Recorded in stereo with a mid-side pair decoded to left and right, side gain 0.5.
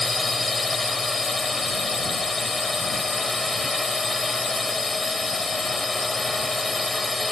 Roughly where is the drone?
Ahead.